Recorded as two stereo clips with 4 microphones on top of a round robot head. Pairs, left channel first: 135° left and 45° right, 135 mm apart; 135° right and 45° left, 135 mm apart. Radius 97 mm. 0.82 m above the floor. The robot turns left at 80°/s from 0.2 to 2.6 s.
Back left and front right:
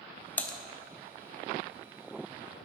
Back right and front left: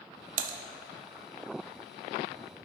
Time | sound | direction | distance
0.4 | typing on a keyboard | 60° left | 0.7 m